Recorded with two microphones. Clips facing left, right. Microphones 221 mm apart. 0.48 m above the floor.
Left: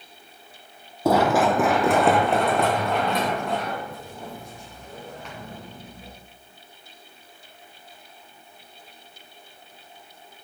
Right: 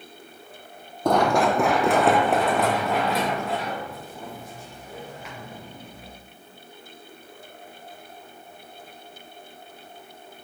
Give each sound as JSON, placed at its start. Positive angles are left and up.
{"t": 1.1, "sound": "running footsteps", "side_deg": 5, "distance_m": 0.8}